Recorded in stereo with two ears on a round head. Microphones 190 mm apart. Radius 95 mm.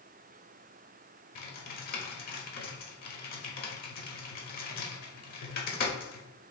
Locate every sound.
1.4 s typing on a keyboard: 45° left (ahead or behind), 1.0 m